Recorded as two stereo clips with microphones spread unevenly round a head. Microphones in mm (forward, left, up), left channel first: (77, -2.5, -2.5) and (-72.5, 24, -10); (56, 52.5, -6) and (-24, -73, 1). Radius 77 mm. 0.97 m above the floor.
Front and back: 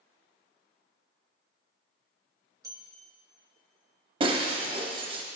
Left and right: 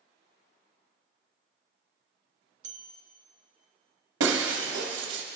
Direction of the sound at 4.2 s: 130° right.